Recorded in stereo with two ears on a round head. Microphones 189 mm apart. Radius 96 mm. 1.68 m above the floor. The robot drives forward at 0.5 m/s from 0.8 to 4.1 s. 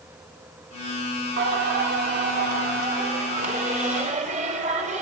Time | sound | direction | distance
1.4 | singing | 55° right (ahead or behind) | 2.5 m